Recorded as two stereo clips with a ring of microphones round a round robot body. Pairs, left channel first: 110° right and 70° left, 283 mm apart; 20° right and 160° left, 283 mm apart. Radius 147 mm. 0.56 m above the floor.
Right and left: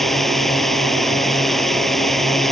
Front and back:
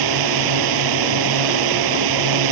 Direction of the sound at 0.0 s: 160° left.